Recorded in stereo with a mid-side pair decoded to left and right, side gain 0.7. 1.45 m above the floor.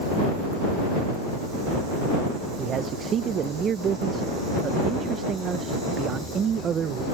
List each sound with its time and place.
2.6 s a man speaking: 40° right